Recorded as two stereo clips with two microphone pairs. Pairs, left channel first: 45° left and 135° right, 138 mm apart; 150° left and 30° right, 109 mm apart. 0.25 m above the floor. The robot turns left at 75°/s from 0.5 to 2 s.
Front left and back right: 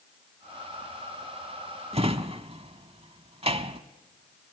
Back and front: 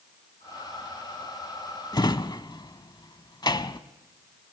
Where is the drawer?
170° right, 0.8 m; by 3.8 s 175° right, 0.8 m.